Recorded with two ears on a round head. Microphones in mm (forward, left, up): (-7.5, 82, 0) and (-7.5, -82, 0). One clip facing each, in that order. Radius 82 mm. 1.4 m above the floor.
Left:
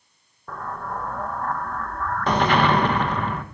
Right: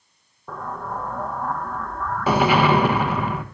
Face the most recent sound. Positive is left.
turn(degrees=-5)  # may be behind; listen again after turning